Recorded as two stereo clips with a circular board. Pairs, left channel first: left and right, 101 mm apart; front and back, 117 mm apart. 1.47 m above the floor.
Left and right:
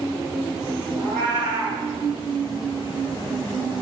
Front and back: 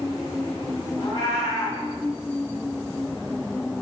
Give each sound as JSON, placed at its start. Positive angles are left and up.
{"t": 1.0, "sound": "a cat meowing", "azimuth_deg": -60, "distance_m": 1.7}